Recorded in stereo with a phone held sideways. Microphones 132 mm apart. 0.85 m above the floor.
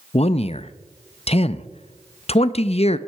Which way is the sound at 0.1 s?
50° left (ahead or behind).